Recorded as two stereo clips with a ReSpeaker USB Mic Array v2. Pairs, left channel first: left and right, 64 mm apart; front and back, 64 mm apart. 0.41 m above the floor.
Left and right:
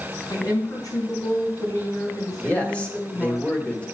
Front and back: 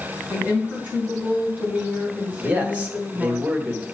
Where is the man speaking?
140° left, 1.4 m.